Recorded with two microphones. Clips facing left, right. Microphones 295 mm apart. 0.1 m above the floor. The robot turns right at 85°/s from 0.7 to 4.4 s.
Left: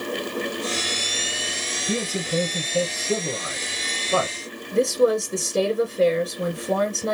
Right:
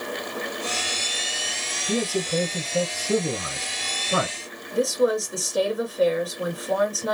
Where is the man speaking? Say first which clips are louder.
Right 2 dB; 20° left (ahead or behind), 1.1 m; by 4.3 s 10° right (ahead or behind), 1.1 m.